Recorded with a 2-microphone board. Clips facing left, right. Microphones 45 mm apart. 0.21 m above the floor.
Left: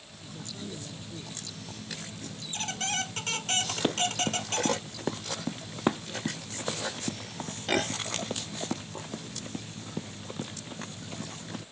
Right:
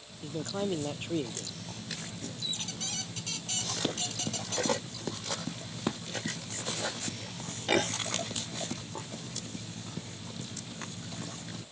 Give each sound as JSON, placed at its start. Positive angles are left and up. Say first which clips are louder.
{"t": 0.2, "sound": "a man speaking", "louder": "right 9 dB", "side_deg": -60}
{"t": 2.4, "sound": "a squeak", "louder": "left 8 dB", "side_deg": 50}
{"t": 3.8, "sound": "running footsteps", "louder": "left 7 dB", "side_deg": 25}